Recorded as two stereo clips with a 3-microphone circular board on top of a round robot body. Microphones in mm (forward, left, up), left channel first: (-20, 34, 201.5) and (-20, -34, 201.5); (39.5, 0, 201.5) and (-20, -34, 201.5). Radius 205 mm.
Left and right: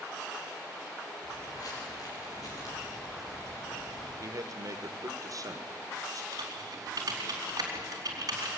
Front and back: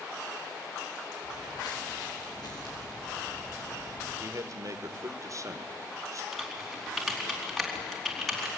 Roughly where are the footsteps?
Ahead left.